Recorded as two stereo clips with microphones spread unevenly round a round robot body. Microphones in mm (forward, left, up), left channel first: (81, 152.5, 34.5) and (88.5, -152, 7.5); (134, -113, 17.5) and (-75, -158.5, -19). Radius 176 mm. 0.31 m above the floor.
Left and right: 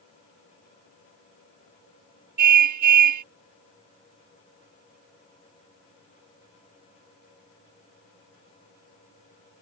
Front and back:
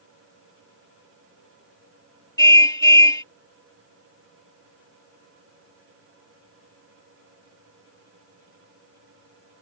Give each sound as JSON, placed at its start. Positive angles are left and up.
{"t": 2.4, "sound": "a car horn", "azimuth_deg": -65}